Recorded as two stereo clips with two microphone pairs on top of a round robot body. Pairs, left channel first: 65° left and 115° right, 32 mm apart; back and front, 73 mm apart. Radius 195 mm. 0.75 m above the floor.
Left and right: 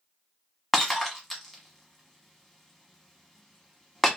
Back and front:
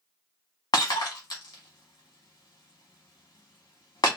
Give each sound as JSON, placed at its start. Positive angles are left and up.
{"t": 0.7, "sound": "breaking glass", "azimuth_deg": 150, "distance_m": 1.0}